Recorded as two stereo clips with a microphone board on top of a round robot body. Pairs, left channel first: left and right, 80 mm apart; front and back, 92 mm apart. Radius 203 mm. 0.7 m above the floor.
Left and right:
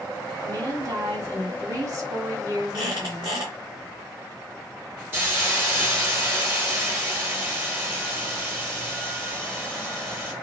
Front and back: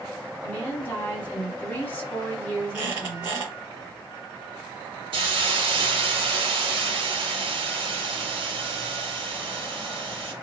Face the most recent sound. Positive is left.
turn(degrees=-155)